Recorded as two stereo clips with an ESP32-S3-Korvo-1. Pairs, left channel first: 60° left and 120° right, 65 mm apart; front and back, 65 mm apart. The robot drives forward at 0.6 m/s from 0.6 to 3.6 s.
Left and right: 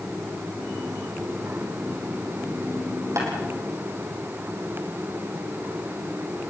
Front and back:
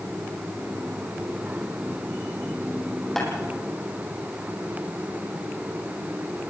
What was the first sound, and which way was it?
Tapping, 85° right.